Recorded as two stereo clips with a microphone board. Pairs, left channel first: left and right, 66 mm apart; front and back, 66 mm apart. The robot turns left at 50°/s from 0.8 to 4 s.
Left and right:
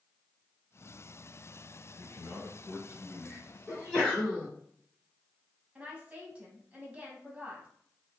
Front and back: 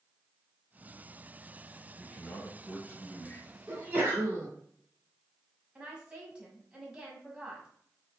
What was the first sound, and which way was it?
A man speaking, 95° left.